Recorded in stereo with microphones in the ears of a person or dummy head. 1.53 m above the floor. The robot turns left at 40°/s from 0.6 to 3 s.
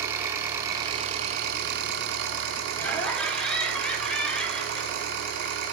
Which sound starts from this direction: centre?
Laughter, at 2.8 s.